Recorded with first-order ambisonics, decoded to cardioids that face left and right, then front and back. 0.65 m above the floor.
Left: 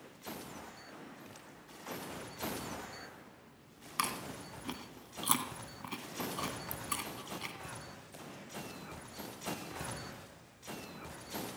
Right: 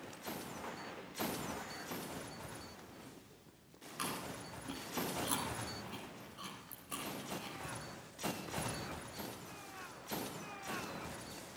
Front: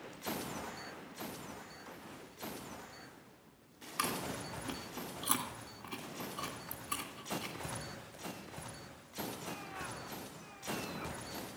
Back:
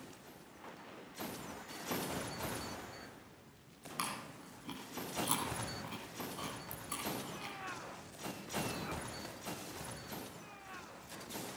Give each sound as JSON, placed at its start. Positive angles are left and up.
{"t": 4.0, "sound": "chewing", "azimuth_deg": 85, "distance_m": 2.5}